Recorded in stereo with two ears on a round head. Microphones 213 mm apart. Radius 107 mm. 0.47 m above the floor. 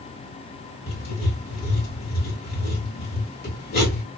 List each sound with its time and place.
0.9 s writing: 40° left (ahead or behind), 1.1 m